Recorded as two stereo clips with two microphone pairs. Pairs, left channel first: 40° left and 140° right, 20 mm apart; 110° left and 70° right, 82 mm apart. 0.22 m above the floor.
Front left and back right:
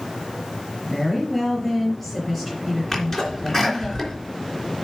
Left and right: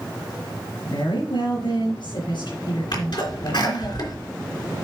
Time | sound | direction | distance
0.8 | a woman speaking | 110° left | 5 m
2.9 | a sneeze | 100° left | 3 m